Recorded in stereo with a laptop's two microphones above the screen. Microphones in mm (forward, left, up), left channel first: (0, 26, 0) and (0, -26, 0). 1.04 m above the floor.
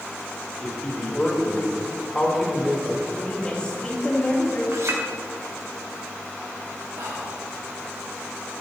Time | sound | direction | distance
0.6 | a man speaking | 20° left (ahead or behind) | 4 m
3.1 | a woman speaking | 25° left (ahead or behind) | 2 m
4.7 | a clink | 70° right (ahead or behind) | 1.9 m
7.0 | whispering | 75° right (ahead or behind) | 2 m